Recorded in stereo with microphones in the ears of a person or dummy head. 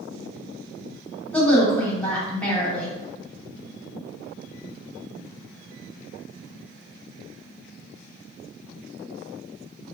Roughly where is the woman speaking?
Centre.